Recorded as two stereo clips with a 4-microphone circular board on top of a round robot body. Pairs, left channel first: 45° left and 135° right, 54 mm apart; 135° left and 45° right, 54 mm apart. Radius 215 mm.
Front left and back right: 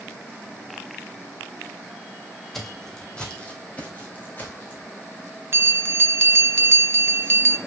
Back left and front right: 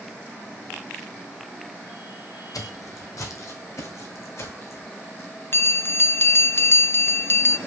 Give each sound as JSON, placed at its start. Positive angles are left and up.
{"t": 2.5, "sound": "footsteps", "azimuth_deg": 130, "distance_m": 1.4}
{"t": 5.5, "sound": "a bell", "azimuth_deg": 180, "distance_m": 0.7}